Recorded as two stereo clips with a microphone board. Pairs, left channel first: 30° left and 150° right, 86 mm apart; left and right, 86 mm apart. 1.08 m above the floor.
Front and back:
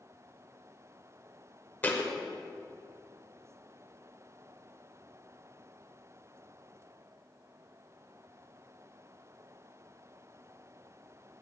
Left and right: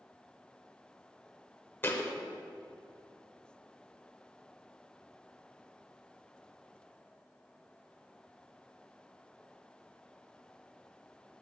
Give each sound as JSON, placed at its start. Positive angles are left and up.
{"t": 1.8, "sound": "a thud", "azimuth_deg": 70, "distance_m": 0.8}